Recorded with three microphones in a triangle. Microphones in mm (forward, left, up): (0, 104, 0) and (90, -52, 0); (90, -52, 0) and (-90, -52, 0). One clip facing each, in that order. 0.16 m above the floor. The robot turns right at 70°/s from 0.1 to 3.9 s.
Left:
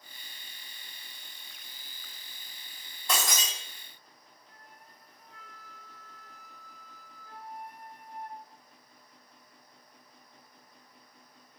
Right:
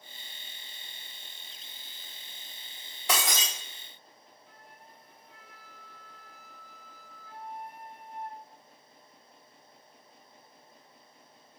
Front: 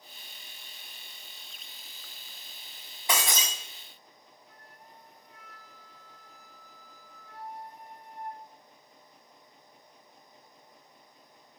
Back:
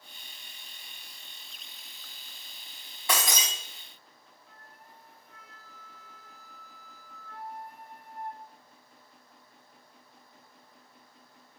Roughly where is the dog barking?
I don't hear a dog barking.